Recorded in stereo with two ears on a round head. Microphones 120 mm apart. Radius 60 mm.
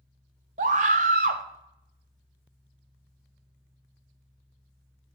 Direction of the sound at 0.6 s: 60° right (ahead or behind).